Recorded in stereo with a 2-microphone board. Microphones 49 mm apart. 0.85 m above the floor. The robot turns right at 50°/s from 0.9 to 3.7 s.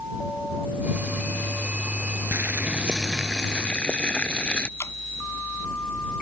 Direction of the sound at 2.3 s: 45° right.